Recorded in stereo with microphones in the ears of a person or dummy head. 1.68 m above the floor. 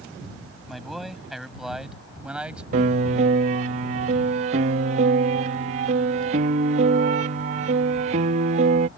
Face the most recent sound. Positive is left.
turn(degrees=-35)  # may be behind; listen again after turning